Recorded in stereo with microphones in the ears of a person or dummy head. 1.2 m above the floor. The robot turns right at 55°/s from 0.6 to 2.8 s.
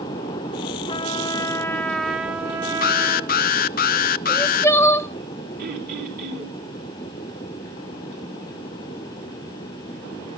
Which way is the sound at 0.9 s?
25° left (ahead or behind).